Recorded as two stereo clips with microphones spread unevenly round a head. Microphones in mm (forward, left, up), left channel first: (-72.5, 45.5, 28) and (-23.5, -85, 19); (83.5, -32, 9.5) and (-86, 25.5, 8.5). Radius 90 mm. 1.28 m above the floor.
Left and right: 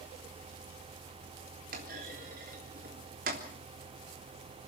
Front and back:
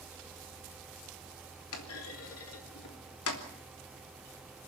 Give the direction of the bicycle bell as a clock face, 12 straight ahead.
No bicycle bell in this recording.